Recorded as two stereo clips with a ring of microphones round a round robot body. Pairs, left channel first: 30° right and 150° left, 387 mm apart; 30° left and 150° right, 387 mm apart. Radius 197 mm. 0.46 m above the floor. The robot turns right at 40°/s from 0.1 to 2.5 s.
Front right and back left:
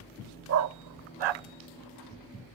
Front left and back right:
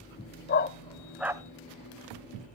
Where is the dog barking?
95° left, 0.8 m; by 1.4 s 130° left, 0.8 m.